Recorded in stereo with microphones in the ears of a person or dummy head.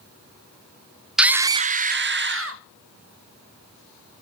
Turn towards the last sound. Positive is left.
turn(degrees=-55)  # may be behind; listen again after turning